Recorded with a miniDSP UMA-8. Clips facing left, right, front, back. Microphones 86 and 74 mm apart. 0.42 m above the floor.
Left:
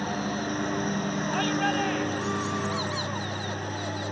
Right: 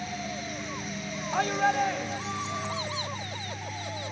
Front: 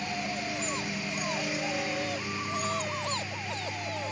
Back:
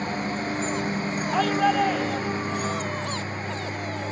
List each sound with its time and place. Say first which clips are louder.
0.0 s a lawn mower: left 6 dB, back 6 dB; 125° left
1.3 s a shout: right 3 dB, back 14 dB; 160° right